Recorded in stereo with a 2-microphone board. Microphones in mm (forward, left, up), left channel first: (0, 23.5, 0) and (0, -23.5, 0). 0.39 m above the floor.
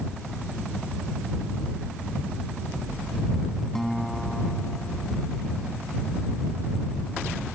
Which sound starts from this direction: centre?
A guitar, at 3.8 s.